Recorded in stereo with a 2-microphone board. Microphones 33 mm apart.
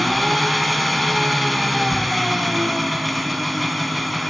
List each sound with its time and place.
0.0 s an engine running: centre (ahead or behind), 2 m
1.9 s a shout: 15° right (ahead or behind), 3 m